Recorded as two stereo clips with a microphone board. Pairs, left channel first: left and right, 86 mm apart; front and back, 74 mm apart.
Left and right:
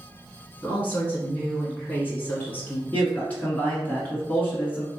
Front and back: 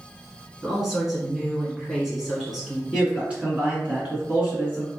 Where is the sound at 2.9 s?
130° left, 1.7 m.